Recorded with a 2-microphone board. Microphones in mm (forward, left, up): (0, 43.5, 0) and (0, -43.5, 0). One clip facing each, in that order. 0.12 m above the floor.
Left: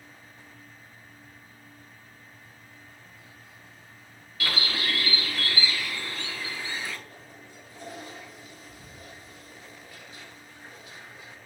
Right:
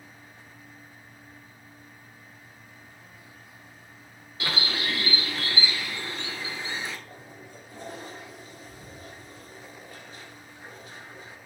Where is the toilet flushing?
45° right (ahead or behind), 3 m.